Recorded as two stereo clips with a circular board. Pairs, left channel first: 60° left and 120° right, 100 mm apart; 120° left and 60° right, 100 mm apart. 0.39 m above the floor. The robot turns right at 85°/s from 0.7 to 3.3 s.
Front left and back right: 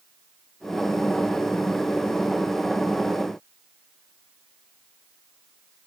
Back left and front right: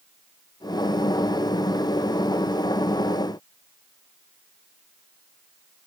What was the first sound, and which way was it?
Only background noise.